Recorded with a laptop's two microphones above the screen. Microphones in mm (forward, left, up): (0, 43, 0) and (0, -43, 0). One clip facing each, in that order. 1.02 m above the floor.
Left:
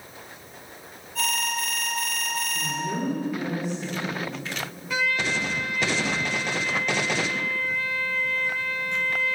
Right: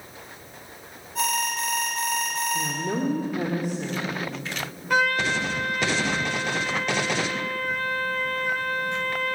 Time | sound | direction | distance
1.1 | an alarm | 20° right (ahead or behind) | 4 m
2.5 | a woman speaking | 55° right (ahead or behind) | 3.5 m
4.9 | a trumpet | 50° right (ahead or behind) | 0.5 m